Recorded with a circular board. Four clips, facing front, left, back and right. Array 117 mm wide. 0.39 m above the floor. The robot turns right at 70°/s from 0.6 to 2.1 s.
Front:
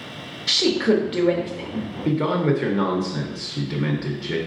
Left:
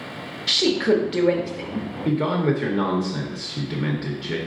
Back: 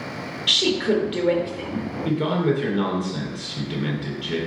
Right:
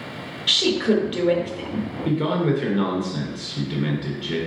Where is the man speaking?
25° left, 0.9 m; by 4.4 s 30° left, 0.9 m.